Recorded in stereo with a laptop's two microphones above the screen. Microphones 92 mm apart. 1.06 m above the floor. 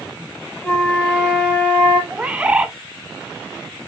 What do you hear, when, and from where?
0.6 s a flute: 20° left (ahead or behind), 1.5 m
2.1 s a bird: 15° right (ahead or behind), 0.6 m